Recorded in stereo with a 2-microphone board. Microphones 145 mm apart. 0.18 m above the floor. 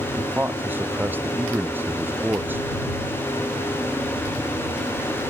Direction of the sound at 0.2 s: 15° right (ahead or behind).